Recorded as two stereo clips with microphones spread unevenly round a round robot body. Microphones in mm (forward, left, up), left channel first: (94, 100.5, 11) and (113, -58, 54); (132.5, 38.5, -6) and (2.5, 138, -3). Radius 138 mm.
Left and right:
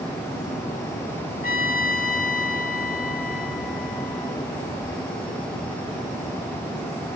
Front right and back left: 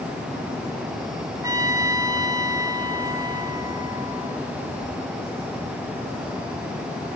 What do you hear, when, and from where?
1.4 s a trumpet: 70° left, 2.5 m